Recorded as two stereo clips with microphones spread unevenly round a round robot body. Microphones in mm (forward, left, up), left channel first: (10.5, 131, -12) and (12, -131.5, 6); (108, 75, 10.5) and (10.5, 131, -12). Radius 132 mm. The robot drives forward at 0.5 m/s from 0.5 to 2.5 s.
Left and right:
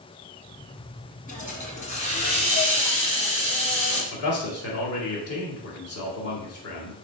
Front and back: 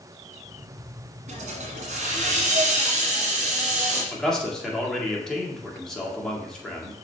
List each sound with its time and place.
1.3 s a hiss: 150° left, 1.7 m; by 4.0 s 160° left, 2 m
4.1 s a man speaking: 55° left, 1.9 m